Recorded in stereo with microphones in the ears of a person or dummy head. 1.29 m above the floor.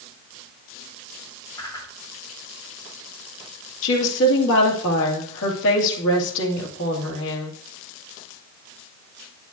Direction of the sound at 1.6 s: 20° left (ahead or behind).